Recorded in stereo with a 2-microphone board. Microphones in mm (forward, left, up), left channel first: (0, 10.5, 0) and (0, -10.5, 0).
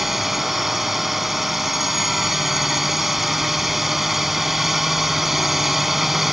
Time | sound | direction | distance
0.0 | a drone | 10° right (ahead or behind) | ?